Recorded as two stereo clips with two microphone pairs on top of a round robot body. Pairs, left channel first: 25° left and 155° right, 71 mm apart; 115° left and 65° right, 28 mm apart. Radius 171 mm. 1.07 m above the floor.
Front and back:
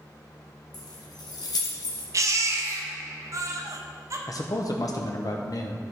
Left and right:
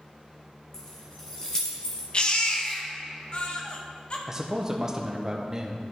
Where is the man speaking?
10° left, 0.8 m.